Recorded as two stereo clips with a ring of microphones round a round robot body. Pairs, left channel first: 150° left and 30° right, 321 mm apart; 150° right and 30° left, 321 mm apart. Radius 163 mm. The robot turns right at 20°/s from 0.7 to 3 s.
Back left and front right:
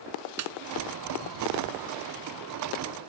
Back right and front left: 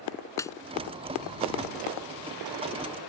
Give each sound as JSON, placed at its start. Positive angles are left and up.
{"t": 0.4, "sound": "a snare drum", "azimuth_deg": -70}